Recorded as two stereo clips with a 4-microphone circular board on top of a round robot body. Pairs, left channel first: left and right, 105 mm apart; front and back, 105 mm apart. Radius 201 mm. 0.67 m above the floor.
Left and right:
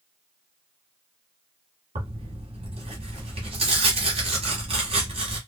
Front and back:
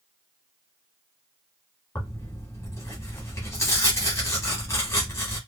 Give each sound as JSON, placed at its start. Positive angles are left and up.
{"t": 1.9, "sound": "tearing paper", "azimuth_deg": -65, "distance_m": 0.7}